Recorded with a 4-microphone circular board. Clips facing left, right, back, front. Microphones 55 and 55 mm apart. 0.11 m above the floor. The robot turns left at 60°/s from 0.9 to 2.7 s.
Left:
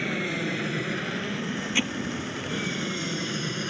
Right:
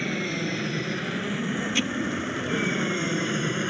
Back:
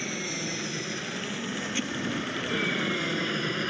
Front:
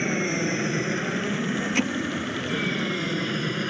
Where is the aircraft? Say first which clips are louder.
Even, front 8 dB; 5° left; by 3.7 s 90° right.